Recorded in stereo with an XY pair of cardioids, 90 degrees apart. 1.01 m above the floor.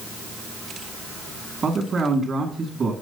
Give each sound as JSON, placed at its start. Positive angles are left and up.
{"t": 1.6, "sound": "a man speaking", "azimuth_deg": -55, "distance_m": 2.0}